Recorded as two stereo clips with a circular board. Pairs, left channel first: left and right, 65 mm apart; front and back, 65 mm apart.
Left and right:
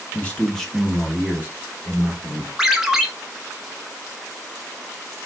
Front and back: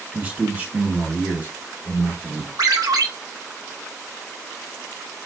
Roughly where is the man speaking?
Behind left.